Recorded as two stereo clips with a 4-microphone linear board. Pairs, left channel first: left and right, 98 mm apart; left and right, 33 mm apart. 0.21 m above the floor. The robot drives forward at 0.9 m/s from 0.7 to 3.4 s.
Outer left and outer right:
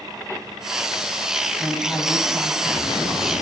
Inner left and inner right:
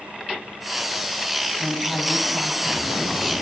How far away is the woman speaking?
About 1.0 m.